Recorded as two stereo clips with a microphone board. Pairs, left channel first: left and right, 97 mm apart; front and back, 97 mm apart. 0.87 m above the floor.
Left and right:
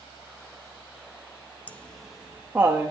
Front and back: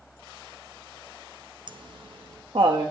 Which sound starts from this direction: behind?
Laughter, at 1.7 s.